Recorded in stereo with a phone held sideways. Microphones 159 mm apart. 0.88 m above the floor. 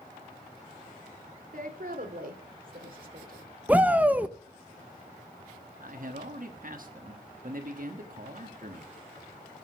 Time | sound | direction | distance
1.5 | a woman speaking | 60° right (ahead or behind) | 2 m
3.7 | a shout | 10° right (ahead or behind) | 0.7 m
5.8 | a man speaking | 60° right (ahead or behind) | 1.3 m